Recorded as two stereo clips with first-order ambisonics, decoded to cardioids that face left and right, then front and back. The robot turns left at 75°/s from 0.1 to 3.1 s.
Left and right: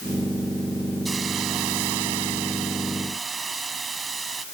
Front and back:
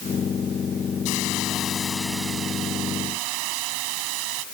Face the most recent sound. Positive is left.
turn(degrees=-165)